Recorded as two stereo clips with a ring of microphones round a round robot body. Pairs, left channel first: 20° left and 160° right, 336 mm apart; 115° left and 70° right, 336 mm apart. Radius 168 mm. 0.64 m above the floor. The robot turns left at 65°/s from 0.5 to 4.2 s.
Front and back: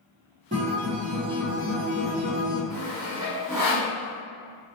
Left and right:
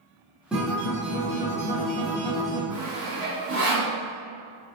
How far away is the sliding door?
I don't hear a sliding door.